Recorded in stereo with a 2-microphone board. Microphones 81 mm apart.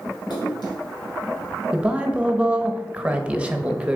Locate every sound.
0.3 s a splash: 65° left (ahead or behind), 2 m
1.7 s a man speaking: 15° right (ahead or behind), 0.8 m